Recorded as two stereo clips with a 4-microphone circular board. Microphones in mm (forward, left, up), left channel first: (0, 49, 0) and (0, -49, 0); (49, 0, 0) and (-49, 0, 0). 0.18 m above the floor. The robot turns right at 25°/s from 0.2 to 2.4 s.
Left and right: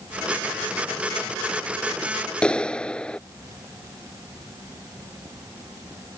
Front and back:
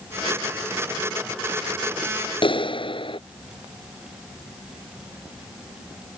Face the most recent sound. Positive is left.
turn(degrees=10)